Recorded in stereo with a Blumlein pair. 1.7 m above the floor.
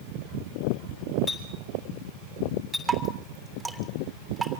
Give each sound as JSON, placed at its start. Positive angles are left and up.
{"t": 1.3, "sound": "a clink", "azimuth_deg": 15, "distance_m": 7.5}
{"t": 2.9, "sound": "dripping", "azimuth_deg": -5, "distance_m": 3.0}